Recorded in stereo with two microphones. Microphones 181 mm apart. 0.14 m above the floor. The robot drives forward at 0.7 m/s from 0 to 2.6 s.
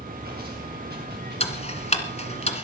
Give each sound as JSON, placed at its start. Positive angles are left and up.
{"t": 0.0, "sound": "running water", "side_deg": -60, "distance_m": 7.5}
{"t": 1.4, "sound": "ticking", "side_deg": 35, "distance_m": 1.5}